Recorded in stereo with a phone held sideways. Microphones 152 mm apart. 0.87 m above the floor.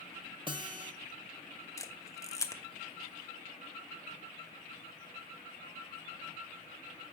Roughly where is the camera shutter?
Left.